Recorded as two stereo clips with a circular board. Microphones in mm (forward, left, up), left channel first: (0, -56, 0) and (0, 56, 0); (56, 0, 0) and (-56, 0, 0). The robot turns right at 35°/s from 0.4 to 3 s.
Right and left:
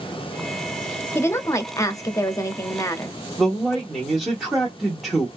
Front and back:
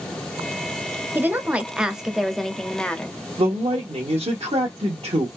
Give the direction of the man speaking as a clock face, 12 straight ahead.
6 o'clock.